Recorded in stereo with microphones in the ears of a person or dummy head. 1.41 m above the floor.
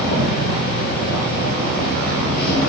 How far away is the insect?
About 0.9 m.